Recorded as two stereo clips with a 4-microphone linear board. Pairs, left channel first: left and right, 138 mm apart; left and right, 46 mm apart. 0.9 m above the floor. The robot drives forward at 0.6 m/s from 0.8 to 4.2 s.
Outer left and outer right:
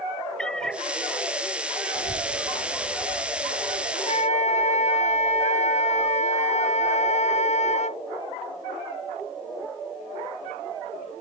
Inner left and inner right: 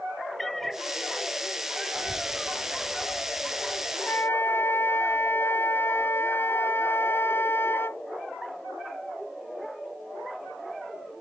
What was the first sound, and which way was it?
A cat meowing, 5° left (ahead or behind).